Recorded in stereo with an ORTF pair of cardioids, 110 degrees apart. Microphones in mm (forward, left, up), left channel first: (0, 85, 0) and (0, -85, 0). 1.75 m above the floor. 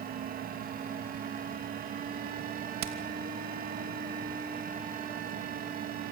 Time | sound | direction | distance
0.0 | a fan | 55° right | 3 m
2.8 | hammering | 70° right | 2.5 m